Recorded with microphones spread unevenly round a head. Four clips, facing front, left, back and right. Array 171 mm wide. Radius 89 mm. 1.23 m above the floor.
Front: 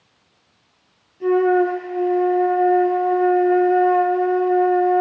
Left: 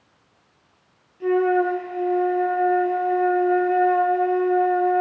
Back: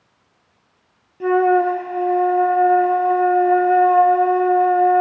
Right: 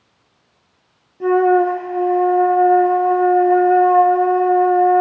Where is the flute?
140° right, 2 m.